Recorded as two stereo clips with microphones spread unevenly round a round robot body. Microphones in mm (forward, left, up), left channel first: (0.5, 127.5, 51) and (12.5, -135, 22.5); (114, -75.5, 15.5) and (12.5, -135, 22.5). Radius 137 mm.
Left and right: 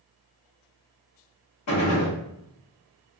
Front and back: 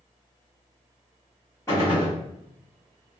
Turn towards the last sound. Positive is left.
turn(degrees=100)